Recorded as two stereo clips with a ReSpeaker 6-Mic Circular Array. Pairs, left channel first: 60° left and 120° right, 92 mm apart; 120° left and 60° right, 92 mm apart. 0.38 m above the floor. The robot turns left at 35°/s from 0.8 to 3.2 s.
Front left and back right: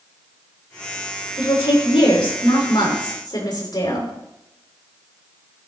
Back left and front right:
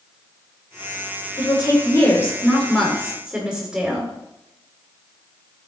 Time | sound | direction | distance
1.4 | a woman speaking | 90° left | 5.5 m